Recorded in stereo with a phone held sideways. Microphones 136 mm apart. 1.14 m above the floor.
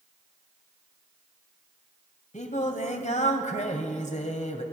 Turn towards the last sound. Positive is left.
turn(degrees=60)  # may be behind; listen again after turning